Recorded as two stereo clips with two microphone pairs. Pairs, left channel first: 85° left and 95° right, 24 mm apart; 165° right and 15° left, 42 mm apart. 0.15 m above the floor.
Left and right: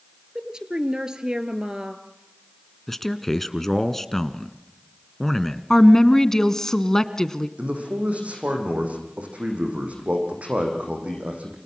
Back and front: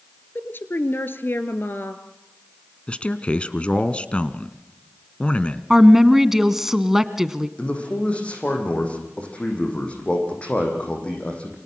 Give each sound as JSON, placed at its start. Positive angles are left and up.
{"t": 0.3, "sound": "a woman speaking", "azimuth_deg": -145, "distance_m": 2.0}
{"t": 2.9, "sound": "a man speaking", "azimuth_deg": 155, "distance_m": 1.4}
{"t": 5.7, "sound": "a woman speaking", "azimuth_deg": 75, "distance_m": 1.2}
{"t": 7.6, "sound": "a man speaking", "azimuth_deg": -110, "distance_m": 6.5}